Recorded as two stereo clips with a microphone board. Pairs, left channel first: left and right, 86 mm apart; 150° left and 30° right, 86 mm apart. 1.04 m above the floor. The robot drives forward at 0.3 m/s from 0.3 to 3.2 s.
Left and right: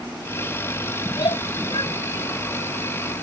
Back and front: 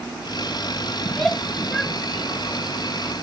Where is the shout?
70° left; by 3.1 s 75° left.